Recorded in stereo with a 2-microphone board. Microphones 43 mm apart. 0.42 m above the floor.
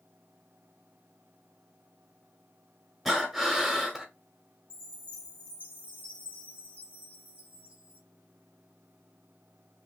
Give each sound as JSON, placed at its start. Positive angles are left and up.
{"t": 3.0, "sound": "breathing", "side_deg": 0, "distance_m": 1.4}
{"t": 4.7, "sound": "a chime", "side_deg": 35, "distance_m": 3.0}